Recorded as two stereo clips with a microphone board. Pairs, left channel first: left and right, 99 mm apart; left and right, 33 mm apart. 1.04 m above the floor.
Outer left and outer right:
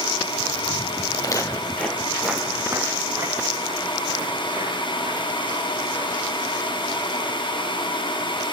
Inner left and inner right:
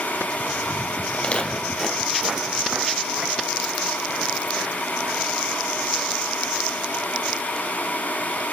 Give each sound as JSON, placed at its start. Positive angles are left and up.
{"t": 1.1, "sound": "footsteps", "side_deg": 45, "distance_m": 1.7}